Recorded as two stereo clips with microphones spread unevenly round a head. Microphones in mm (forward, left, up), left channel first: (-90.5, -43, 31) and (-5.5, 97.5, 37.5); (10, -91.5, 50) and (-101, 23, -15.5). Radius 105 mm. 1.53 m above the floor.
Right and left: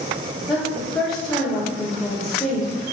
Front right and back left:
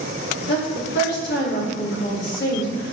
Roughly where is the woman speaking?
Ahead right.